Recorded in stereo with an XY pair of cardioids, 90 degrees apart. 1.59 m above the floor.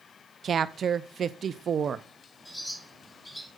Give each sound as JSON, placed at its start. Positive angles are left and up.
{"t": 0.4, "sound": "a woman speaking", "azimuth_deg": -55, "distance_m": 0.6}
{"t": 2.5, "sound": "a bird", "azimuth_deg": 5, "distance_m": 4.0}